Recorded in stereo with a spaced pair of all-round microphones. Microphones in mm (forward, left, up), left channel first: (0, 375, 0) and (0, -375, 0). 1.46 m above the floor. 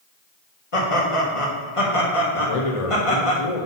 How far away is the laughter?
About 1.5 m.